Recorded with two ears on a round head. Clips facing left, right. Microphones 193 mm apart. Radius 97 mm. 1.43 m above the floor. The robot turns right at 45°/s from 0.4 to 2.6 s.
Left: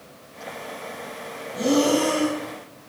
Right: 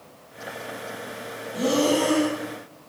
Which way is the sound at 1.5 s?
115° right.